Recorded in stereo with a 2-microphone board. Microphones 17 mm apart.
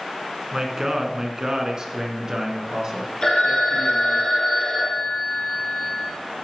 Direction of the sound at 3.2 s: 50° left (ahead or behind).